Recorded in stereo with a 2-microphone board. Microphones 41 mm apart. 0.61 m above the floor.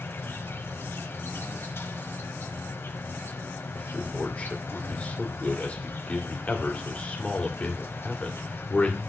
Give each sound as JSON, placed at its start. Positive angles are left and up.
{"t": 0.0, "sound": "an insect", "side_deg": 75, "distance_m": 1.2}
{"t": 3.8, "sound": "a man speaking", "side_deg": 30, "distance_m": 2.0}